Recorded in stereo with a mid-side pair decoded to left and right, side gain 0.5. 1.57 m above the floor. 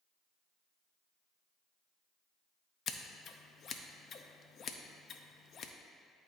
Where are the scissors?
50° left, 0.6 m.